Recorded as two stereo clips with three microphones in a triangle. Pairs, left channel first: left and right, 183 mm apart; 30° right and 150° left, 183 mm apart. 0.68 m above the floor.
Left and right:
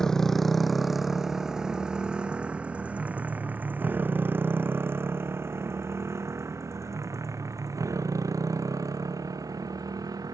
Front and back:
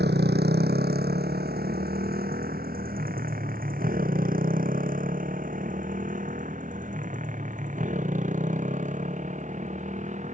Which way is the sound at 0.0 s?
Straight behind.